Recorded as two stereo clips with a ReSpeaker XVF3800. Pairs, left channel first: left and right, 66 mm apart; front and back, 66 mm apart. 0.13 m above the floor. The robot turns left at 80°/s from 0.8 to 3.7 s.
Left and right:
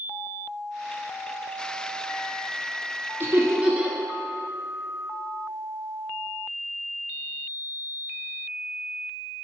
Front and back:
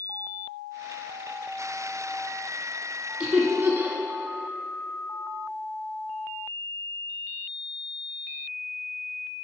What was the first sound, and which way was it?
Laughter, 110° right.